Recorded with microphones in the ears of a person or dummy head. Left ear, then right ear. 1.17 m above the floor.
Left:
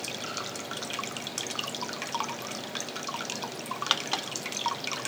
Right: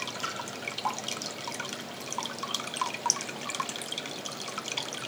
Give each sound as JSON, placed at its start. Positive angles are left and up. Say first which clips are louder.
{"t": 0.2, "sound": "a splash", "louder": "right 2 dB", "side_deg": -55, "distance_m": 4.5}